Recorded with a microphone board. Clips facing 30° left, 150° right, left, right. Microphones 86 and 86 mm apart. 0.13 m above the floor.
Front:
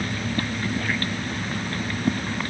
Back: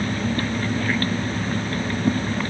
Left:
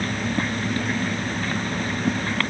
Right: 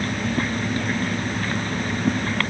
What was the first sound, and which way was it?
Only background noise.